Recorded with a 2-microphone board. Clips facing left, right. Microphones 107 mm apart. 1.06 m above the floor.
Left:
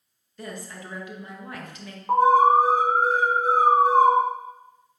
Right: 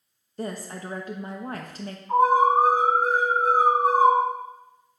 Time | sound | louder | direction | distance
0.4 | a woman speaking | right 5 dB | 40° right (ahead or behind) | 1.2 m
2.1 | an alarm | left 2 dB | 75° left (ahead or behind) | 4 m